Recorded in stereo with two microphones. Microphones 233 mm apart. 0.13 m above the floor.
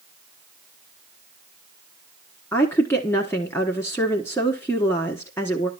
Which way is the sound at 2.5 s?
10° left (ahead or behind).